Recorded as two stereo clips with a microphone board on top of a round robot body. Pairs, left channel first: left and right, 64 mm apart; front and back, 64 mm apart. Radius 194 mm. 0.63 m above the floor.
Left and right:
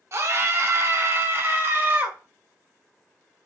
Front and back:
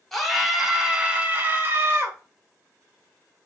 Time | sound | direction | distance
0.1 | a scream | 85° right | 1.6 m